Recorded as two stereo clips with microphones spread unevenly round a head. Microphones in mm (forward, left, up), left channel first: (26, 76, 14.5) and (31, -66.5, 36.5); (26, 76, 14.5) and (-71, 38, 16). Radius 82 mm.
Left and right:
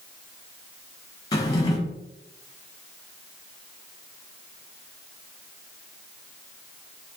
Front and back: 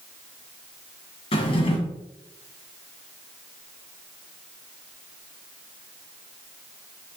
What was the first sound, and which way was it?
A drawer, 25° left.